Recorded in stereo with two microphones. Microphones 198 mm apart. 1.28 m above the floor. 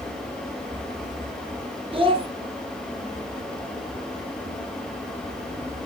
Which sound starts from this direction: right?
A child speaking, at 1.9 s.